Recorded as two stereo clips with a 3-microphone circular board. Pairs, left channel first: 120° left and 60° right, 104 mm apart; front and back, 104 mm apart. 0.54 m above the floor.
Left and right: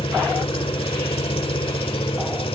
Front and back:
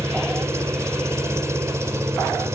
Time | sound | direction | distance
0.0 | an engine running | 120° left | 1.9 m